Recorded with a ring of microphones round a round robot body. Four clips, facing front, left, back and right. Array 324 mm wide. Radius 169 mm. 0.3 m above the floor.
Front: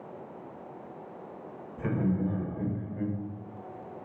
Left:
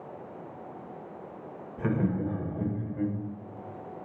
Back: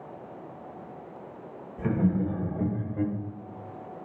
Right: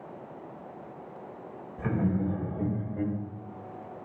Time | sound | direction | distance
1.8 | laughter | 80° left | 1.1 m